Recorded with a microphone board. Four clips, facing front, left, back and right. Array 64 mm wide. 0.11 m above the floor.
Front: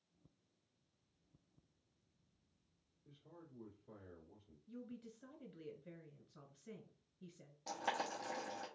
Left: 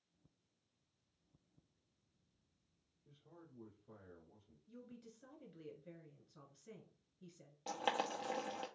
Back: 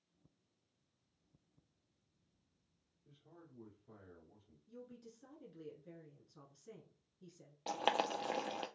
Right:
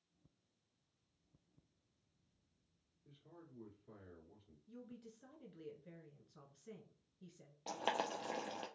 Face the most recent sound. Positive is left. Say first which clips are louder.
# left 1 dB, back 6 dB
turn(degrees=180)